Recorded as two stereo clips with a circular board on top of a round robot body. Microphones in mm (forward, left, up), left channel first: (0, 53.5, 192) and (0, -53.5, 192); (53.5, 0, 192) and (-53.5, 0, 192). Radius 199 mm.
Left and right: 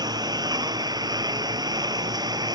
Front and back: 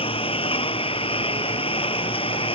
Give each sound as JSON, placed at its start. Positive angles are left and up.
{"t": 0.0, "sound": "a lawn mower", "azimuth_deg": -35}